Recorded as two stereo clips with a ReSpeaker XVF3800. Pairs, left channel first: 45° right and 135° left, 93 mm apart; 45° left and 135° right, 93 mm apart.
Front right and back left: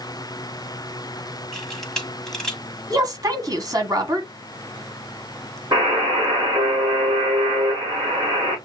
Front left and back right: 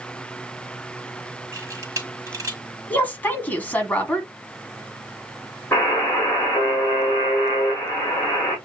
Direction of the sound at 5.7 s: 110° left.